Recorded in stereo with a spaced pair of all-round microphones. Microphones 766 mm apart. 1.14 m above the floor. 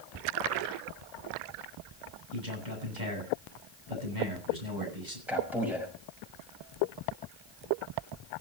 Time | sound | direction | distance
2.3 | a man speaking | 70° right (ahead or behind) | 8 m
5.3 | a man speaking | centre (ahead or behind) | 6 m